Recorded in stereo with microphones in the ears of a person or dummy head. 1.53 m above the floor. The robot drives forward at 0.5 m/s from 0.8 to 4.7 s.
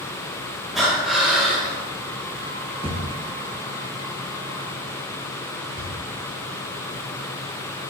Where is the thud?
25° right (ahead or behind), 1.1 m; by 5.9 s 20° right (ahead or behind), 1.4 m.